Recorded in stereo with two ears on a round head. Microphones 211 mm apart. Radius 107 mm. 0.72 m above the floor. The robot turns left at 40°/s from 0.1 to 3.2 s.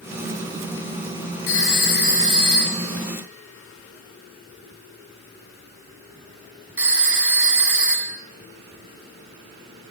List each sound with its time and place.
1.5 s a phone ringing: 65° left (ahead or behind), 3.5 m; by 8.2 s 5° right (ahead or behind), 3.5 m